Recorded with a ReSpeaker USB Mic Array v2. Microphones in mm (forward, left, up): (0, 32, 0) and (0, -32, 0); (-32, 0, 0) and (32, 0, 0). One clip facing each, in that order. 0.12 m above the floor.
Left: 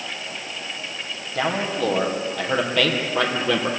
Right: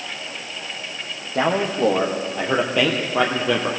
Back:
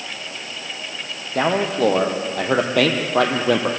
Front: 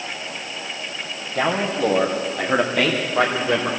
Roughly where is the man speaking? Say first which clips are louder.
Right 4 dB, back 2 dB; behind right.